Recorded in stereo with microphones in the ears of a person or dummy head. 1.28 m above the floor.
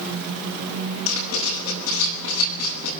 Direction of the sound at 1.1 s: 75° left (ahead or behind).